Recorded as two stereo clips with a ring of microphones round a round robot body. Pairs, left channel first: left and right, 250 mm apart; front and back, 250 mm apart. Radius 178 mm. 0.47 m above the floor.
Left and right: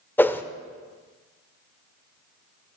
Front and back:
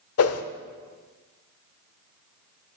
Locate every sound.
0.2 s a whoosh: 10° left, 0.9 m